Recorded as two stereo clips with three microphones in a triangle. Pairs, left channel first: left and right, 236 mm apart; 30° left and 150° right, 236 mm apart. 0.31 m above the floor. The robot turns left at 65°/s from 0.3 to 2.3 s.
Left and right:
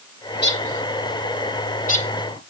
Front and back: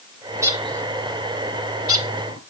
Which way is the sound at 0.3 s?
140° left.